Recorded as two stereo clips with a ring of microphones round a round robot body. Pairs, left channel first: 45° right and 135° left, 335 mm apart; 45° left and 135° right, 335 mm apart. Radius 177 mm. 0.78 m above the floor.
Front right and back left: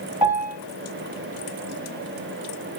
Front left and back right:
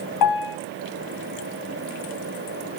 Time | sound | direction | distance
0.2 | a piano | 65° left | 1.6 m